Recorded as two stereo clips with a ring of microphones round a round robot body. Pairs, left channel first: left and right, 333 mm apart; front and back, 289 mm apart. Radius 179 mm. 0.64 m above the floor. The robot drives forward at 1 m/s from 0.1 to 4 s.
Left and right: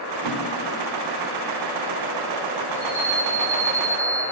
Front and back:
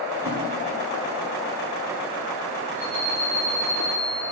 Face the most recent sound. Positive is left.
turn(degrees=-170)